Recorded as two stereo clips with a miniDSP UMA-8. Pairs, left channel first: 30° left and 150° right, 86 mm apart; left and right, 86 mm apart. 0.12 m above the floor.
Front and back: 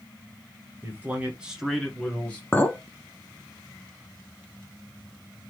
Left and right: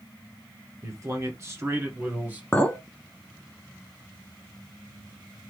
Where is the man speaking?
100° right, 1.4 m; by 2.4 s 30° right, 1.3 m.